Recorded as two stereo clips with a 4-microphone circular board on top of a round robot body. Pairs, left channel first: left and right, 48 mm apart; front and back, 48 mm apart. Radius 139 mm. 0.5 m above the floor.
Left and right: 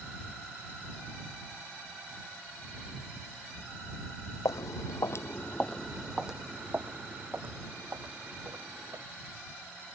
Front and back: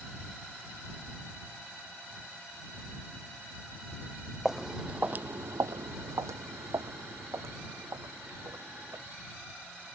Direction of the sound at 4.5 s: 95° left.